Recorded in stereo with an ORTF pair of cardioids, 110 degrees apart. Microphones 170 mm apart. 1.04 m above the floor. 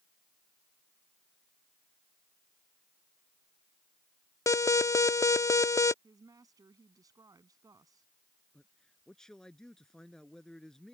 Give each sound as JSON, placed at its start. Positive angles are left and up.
{"t": 4.5, "sound": "an alarm", "azimuth_deg": 15}
{"t": 6.0, "sound": "a woman speaking", "azimuth_deg": -20}
{"t": 8.5, "sound": "a man speaking", "azimuth_deg": 5}